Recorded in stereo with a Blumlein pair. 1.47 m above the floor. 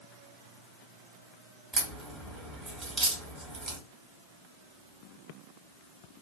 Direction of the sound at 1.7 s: 20° right.